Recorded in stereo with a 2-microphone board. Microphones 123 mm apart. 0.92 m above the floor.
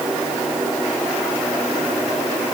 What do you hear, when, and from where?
Only background noise.